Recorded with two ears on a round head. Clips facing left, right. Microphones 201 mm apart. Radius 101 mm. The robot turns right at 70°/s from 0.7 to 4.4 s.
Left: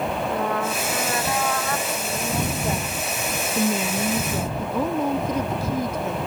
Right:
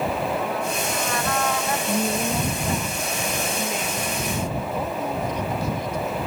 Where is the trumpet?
125° left; by 1.8 s 160° right.